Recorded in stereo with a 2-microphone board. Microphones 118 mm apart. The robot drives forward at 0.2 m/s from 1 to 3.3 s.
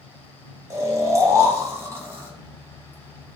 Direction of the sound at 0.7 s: 25° right (ahead or behind).